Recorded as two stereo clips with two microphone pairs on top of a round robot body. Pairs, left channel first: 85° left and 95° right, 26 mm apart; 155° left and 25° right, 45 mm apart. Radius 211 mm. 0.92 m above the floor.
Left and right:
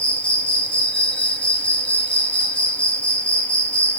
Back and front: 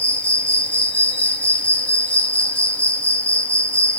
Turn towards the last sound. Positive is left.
turn(degrees=105)